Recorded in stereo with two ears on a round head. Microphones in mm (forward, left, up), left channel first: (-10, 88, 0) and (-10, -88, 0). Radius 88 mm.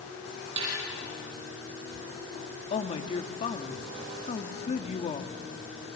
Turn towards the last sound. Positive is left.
turn(degrees=35)  # may be behind; listen again after turning